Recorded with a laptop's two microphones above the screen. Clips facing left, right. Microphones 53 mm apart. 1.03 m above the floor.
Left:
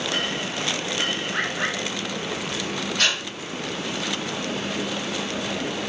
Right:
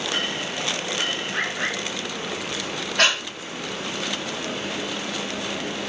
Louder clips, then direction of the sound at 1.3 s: Even; 15° left (ahead or behind).